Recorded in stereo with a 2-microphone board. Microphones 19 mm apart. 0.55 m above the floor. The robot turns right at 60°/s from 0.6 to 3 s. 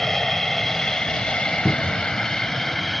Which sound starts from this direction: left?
An aircraft, at 0.0 s.